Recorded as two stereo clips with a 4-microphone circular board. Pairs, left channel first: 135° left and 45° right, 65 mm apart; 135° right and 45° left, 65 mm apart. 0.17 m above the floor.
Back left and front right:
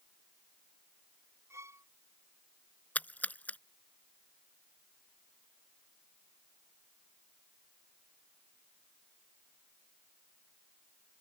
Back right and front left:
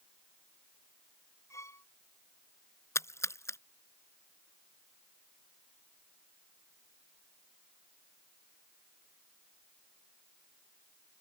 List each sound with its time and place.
1.5 s a violin: 90° right
3.0 s a splash: 165° right